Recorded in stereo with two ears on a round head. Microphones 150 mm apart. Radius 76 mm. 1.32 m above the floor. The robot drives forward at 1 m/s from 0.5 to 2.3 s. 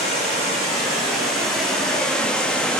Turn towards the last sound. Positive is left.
turn(degrees=5)  # may be behind; listen again after turning